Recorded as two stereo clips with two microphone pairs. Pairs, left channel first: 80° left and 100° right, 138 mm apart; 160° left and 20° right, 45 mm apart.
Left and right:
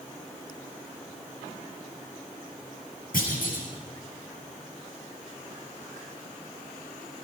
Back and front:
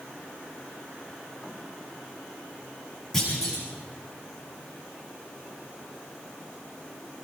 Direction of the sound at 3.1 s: 80° left.